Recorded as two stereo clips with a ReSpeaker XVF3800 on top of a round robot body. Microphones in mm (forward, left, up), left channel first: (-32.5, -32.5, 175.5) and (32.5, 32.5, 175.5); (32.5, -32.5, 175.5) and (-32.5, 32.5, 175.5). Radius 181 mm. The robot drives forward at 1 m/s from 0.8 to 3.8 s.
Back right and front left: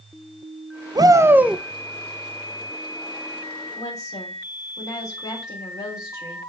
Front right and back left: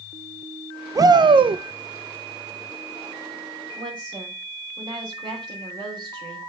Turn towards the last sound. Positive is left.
turn(degrees=175)